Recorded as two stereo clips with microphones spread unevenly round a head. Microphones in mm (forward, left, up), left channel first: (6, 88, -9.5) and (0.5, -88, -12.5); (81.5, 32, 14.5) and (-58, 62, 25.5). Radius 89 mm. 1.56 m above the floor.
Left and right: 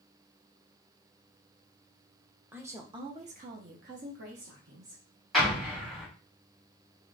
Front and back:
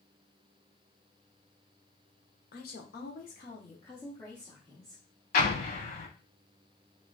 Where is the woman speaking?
10° right, 0.9 m; by 5.0 s 105° right, 1.3 m.